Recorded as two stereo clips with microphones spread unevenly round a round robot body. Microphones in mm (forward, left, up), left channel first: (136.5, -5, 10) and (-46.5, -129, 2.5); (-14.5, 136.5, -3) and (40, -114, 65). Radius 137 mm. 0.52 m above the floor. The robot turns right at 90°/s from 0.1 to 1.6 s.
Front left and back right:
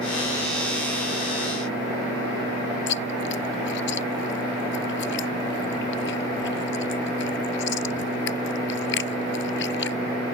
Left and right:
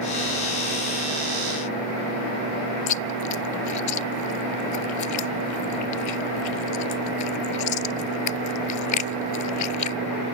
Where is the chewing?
85° left.